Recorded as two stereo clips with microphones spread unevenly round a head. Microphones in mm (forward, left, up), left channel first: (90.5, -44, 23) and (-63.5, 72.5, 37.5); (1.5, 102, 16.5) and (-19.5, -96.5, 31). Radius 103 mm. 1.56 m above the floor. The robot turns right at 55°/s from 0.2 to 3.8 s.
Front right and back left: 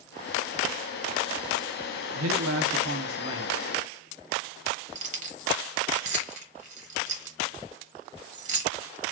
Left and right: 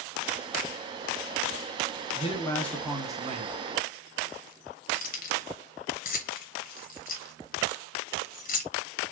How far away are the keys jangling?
About 1.0 m.